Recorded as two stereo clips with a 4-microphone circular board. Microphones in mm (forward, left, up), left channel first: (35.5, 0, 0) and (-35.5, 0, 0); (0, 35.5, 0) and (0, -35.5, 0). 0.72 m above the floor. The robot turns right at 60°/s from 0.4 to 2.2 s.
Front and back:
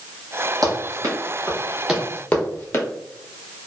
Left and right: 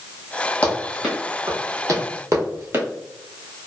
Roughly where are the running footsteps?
Behind left.